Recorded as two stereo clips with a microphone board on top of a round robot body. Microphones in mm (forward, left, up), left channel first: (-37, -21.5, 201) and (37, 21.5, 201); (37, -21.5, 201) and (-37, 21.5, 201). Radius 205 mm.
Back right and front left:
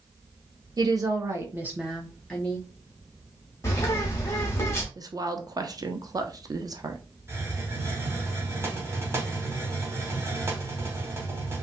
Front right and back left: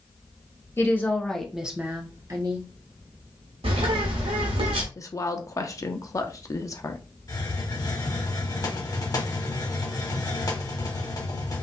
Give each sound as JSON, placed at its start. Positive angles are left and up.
{"t": 0.8, "sound": "a woman speaking", "azimuth_deg": 20, "distance_m": 1.5}
{"t": 3.6, "sound": "a bird", "azimuth_deg": 150, "distance_m": 0.9}
{"t": 5.0, "sound": "a woman speaking", "azimuth_deg": 5, "distance_m": 0.9}
{"t": 7.3, "sound": "a hiss", "azimuth_deg": -15, "distance_m": 1.5}